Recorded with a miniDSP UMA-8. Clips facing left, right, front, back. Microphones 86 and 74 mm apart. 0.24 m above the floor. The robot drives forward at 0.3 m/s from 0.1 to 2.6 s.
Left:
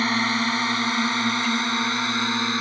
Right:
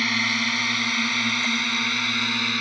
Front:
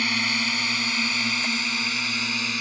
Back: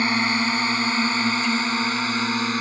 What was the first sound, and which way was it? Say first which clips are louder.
A drone: left 3 dB, back 5 dB; 140° left.